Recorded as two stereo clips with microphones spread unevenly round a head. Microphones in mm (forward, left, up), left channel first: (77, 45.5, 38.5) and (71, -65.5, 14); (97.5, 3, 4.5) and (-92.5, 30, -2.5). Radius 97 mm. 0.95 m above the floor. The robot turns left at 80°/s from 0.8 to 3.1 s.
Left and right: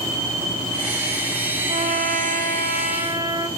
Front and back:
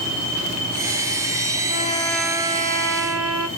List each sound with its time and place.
1.7 s a trumpet: 55° right, 1.0 m; by 3.5 s 170° right, 1.0 m